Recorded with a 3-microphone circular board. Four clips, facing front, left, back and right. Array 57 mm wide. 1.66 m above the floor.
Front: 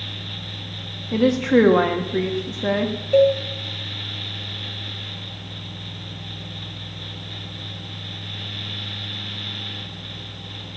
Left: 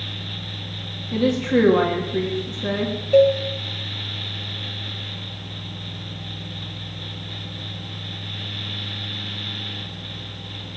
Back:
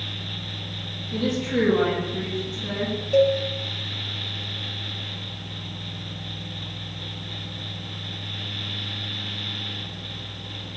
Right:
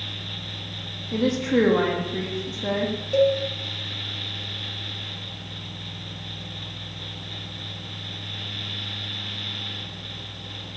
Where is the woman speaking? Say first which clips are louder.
Left 2 dB, front 8 dB; straight ahead, 2.5 m.